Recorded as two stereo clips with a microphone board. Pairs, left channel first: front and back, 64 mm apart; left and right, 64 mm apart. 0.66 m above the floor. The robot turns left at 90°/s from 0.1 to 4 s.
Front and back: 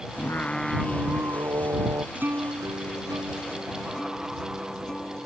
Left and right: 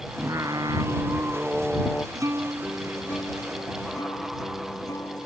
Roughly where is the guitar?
Behind right.